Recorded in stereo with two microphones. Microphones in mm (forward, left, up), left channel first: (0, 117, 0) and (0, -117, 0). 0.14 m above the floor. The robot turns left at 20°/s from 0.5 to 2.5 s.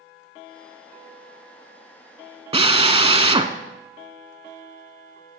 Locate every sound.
2.5 s a drill: 25° right (ahead or behind), 0.5 m